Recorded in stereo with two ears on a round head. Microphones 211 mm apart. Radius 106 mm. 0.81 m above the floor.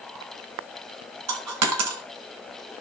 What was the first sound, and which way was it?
A dropped coin, 70° right (ahead or behind).